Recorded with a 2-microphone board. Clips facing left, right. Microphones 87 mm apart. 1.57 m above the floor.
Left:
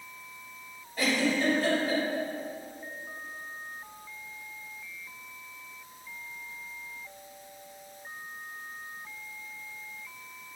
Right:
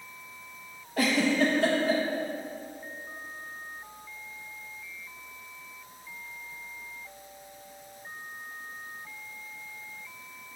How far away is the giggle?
About 1.2 m.